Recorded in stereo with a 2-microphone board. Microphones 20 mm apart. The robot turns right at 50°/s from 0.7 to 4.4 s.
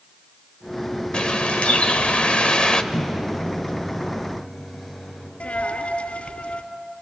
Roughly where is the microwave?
Behind left.